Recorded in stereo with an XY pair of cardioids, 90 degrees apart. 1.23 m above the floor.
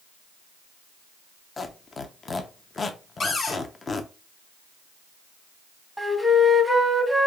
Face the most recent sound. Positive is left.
turn(degrees=-5)